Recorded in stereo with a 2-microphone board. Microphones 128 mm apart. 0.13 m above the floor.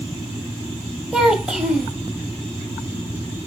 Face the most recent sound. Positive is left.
turn(degrees=-5)  # may be behind; listen again after turning